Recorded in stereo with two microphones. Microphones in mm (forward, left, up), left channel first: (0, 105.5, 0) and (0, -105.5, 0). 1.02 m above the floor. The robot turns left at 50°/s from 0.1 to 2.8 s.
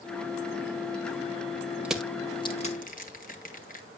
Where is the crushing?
5° right (ahead or behind), 1.8 m; by 3.9 s 40° left (ahead or behind), 1.8 m.